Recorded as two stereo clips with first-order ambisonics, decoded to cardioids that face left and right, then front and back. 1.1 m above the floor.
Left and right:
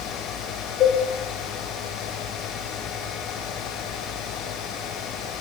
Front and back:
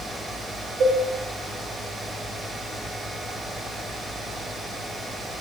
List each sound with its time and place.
0.8 s a cowbell: 135° left, 1.0 m